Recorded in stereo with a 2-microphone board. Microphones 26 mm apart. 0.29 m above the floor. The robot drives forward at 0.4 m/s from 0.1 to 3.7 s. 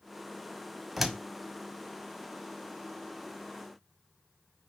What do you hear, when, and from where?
1.0 s a door slam: 5° right (ahead or behind), 1.6 m